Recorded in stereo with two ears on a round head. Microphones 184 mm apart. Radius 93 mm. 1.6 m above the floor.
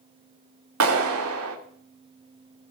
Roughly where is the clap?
Right.